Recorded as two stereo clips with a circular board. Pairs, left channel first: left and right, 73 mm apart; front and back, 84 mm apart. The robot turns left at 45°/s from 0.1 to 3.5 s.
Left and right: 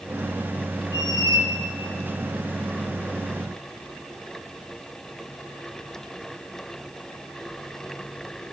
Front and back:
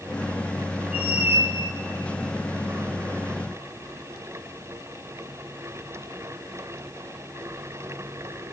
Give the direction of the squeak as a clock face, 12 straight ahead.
3 o'clock.